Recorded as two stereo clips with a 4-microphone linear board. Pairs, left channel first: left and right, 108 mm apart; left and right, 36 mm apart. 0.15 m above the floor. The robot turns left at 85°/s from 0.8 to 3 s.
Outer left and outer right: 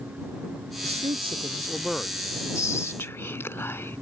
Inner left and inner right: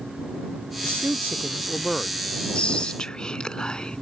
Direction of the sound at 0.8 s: 90° right.